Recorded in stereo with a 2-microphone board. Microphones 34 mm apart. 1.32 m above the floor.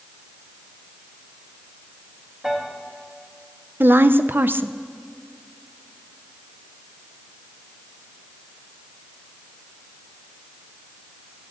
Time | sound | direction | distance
2.4 | a piano | 20° right (ahead or behind) | 1.8 m
3.8 | a woman speaking | 80° right | 0.5 m